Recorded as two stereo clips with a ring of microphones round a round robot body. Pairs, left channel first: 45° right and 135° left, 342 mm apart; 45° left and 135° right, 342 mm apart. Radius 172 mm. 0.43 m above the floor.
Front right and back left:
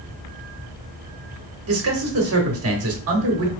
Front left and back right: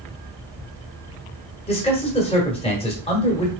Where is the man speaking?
110° left, 1.2 m.